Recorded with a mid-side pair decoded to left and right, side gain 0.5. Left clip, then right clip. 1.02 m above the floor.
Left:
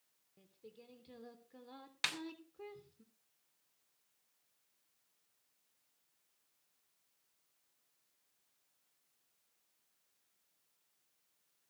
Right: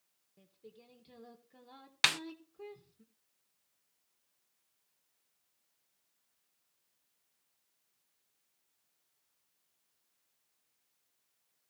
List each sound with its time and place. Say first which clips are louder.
0.4 s singing: right 1 dB; 5° left, 3.5 m
2.0 s a snare drum: right 9 dB; 55° right, 0.5 m